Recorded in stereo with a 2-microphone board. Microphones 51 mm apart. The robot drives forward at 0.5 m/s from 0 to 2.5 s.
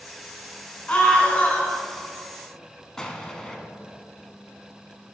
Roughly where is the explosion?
Centre.